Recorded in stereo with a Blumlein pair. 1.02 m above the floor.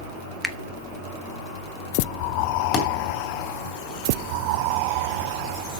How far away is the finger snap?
About 1.1 m.